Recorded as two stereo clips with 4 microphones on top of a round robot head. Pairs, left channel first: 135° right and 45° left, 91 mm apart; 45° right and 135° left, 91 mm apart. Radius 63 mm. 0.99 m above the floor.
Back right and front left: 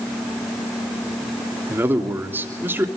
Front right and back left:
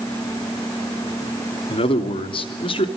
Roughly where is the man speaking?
Ahead.